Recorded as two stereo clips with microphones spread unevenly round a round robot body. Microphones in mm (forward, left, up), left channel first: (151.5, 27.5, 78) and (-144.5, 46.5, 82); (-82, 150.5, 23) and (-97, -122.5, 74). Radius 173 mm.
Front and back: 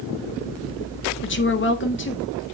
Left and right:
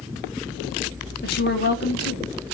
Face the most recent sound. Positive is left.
turn(degrees=45)